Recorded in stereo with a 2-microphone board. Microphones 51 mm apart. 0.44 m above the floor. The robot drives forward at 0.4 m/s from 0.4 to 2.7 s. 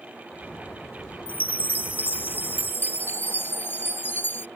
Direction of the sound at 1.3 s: 40° left (ahead or behind).